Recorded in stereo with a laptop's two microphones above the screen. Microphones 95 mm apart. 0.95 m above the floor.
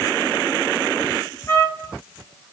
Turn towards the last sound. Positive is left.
turn(degrees=35)  # may be behind; listen again after turning